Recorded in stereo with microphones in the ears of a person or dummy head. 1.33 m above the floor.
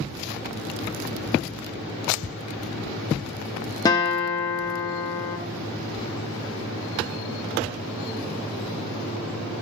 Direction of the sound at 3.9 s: 15° left (ahead or behind).